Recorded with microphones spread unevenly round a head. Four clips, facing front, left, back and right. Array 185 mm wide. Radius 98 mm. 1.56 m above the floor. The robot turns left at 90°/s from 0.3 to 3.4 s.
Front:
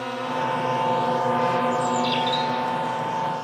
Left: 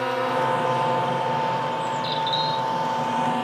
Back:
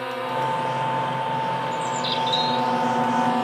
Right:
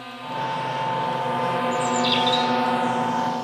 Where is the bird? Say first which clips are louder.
Right 3 dB, front 3 dB; 80° right; by 2.7 s 165° right.